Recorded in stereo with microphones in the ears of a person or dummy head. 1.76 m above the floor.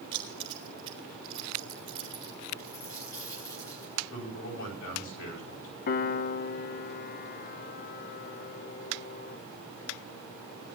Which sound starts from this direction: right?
Keys jangling, at 0.1 s.